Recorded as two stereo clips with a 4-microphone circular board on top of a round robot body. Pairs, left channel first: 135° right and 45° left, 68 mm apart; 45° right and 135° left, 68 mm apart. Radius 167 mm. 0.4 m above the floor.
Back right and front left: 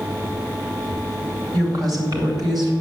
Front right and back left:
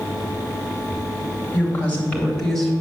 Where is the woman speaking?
15° left, 3 m; by 2.7 s 40° left, 3 m.